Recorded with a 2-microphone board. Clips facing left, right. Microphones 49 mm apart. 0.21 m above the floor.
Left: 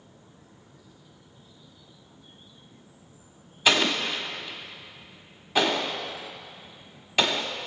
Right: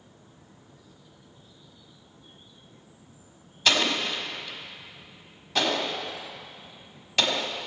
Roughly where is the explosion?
Centre.